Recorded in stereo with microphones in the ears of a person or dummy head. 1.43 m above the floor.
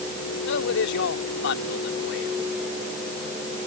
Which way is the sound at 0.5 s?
75° left (ahead or behind).